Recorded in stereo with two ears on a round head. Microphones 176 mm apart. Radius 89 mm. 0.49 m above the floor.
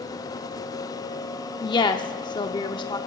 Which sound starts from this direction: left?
A woman speaking, at 1.6 s.